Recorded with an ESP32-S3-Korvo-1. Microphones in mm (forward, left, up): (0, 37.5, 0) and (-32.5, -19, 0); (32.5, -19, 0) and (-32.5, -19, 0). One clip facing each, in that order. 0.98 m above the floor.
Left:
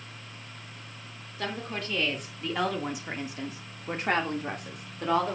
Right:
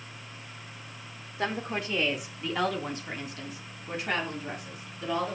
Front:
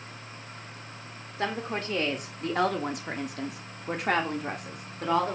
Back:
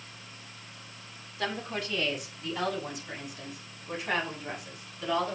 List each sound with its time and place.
1.4 s a woman speaking: 55° right, 2.5 m; by 5.4 s 40° left, 2.5 m